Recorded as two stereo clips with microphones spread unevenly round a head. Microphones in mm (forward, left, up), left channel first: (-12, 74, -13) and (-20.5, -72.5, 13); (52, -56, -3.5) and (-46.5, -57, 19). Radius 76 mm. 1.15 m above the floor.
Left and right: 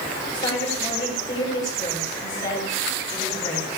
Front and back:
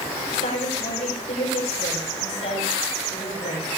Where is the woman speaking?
20° left, 6 m.